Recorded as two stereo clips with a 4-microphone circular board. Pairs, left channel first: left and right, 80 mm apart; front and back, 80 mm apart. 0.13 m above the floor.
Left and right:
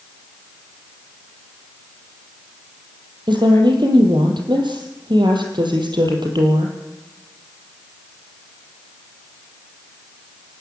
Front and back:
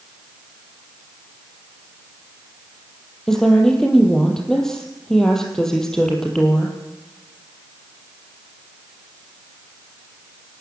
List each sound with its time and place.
3.3 s a woman speaking: 85° right, 4 m